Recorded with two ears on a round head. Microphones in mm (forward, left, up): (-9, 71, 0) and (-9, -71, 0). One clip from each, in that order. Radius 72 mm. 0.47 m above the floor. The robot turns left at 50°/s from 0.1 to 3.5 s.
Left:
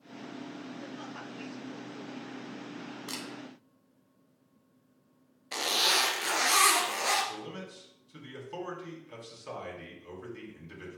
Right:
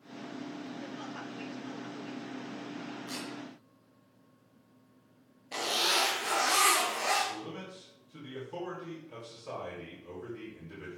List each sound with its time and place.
3.1 s a camera shutter: 50° left (ahead or behind), 2.5 m; by 3.2 s 55° left (ahead or behind), 2.5 m
5.5 s a zipper: 45° left (ahead or behind), 2.5 m
7.2 s a man speaking: 55° left (ahead or behind), 4.5 m